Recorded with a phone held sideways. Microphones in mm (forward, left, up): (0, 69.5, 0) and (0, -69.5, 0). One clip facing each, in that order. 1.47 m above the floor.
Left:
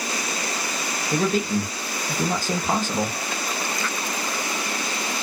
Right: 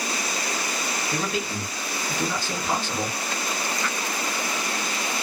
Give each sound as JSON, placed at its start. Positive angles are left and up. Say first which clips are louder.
{"t": 1.1, "sound": "a man speaking", "louder": "left 9 dB", "side_deg": 45, "distance_m": 1.1}